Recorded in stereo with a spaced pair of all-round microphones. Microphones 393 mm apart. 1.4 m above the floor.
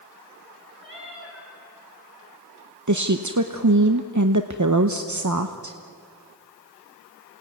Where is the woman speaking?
50° right (ahead or behind), 0.9 m.